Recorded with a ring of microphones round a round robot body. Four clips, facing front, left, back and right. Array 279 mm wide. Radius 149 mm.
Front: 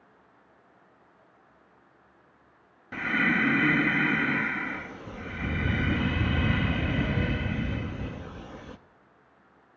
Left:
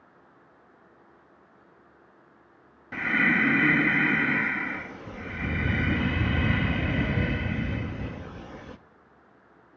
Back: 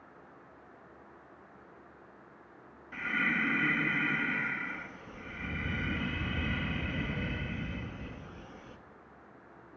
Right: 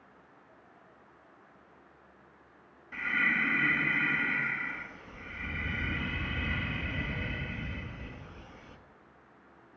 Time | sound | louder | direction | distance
2.9 | breathing | left 7 dB, front 7 dB | 55° left | 1.3 m